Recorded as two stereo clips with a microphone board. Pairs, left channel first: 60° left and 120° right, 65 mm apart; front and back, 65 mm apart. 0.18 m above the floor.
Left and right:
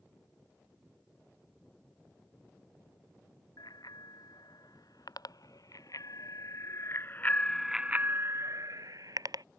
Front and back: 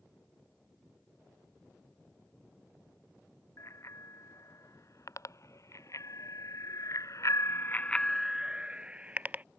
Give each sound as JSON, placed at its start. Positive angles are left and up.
{"t": 3.6, "sound": "a bicycle bell", "azimuth_deg": 45}